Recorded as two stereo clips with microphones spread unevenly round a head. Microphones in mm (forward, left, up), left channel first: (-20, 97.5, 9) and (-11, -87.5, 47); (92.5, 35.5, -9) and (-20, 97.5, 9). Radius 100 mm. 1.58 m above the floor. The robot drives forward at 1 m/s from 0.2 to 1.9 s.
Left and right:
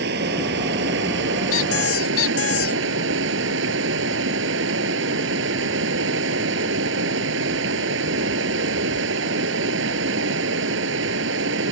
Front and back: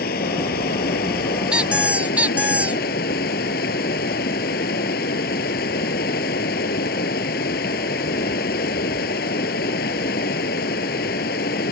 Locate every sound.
0.0 s running water: 50° right; by 11.7 s 60° right
1.5 s a squeak: 70° left; by 2.8 s 75° left